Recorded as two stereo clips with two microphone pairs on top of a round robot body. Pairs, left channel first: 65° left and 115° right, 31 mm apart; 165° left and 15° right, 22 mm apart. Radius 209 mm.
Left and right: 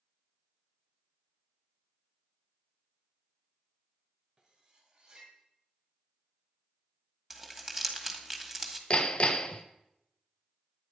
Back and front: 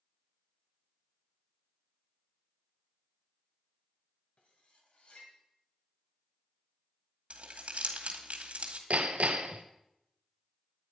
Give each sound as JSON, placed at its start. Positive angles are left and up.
{"t": 4.4, "sound": "cutlery clinking", "azimuth_deg": -175, "distance_m": 2.0}
{"t": 7.3, "sound": "crumpling", "azimuth_deg": -35, "distance_m": 2.0}
{"t": 8.9, "sound": "hammering", "azimuth_deg": 10, "distance_m": 0.5}